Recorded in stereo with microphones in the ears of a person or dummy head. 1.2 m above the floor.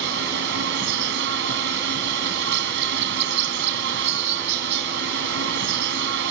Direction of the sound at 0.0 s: 60° right (ahead or behind).